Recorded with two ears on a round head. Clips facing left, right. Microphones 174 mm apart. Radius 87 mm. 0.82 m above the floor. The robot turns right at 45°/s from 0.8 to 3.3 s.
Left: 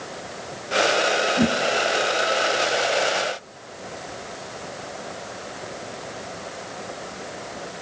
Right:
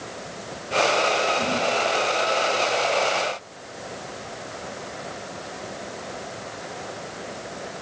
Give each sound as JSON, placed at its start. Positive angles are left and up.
{"t": 1.4, "sound": "a whoosh", "side_deg": 70, "distance_m": 5.0}